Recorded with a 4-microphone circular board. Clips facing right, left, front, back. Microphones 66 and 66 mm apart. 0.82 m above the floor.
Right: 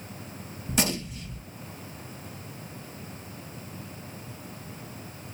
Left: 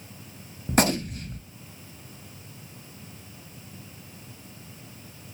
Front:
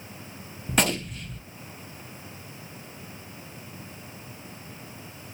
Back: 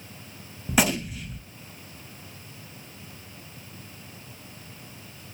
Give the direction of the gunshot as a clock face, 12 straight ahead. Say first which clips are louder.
Left 6 dB, back 2 dB; 9 o'clock.